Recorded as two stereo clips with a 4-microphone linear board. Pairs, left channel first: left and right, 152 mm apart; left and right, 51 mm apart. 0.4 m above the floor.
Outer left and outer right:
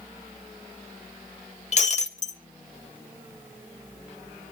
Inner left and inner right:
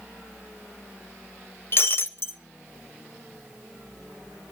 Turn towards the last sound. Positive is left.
turn(degrees=50)  # may be behind; listen again after turning